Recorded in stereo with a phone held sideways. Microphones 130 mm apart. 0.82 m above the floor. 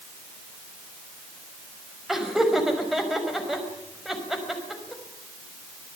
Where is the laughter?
Centre (ahead or behind), 5.5 m.